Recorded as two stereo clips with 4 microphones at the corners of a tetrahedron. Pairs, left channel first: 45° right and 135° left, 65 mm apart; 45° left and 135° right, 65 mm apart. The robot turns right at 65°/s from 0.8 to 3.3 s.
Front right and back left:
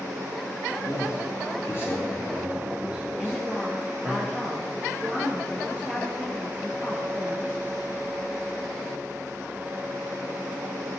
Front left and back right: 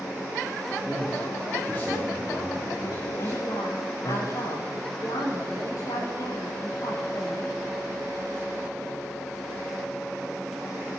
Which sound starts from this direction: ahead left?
A woman speaking, at 3.2 s.